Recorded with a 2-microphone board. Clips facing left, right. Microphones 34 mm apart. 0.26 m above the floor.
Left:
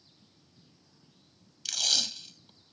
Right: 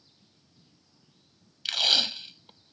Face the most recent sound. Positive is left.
turn(degrees=-40)  # may be behind; listen again after turning